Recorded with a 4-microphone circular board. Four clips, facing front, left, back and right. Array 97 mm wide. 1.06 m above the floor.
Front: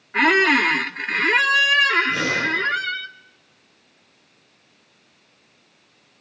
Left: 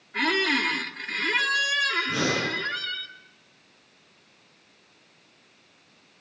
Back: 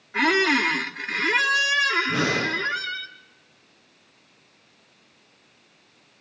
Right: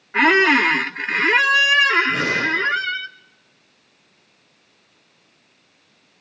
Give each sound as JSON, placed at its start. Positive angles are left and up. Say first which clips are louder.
{"t": 0.1, "sound": "a squeak", "louder": "right 10 dB, front 4 dB", "azimuth_deg": -70, "distance_m": 0.7}
{"t": 2.1, "sound": "breathing", "louder": "right 4 dB, even", "azimuth_deg": 170, "distance_m": 9.5}